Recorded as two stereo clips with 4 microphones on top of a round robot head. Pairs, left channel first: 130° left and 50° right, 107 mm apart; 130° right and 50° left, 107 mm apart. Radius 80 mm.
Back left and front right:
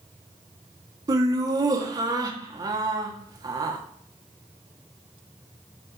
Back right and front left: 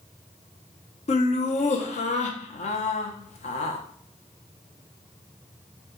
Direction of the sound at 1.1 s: 110° right.